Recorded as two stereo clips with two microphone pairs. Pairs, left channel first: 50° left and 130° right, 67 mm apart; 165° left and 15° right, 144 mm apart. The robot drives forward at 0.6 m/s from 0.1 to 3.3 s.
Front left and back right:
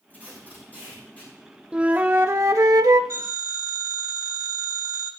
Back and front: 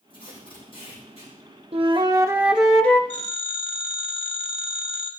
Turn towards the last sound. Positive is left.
turn(degrees=-160)